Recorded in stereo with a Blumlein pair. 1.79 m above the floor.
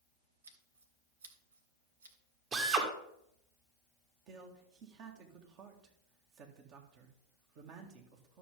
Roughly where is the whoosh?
No whoosh in this recording.